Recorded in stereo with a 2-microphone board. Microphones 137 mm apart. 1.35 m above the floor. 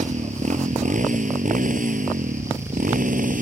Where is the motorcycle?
60° right (ahead or behind); by 3.4 s 85° right.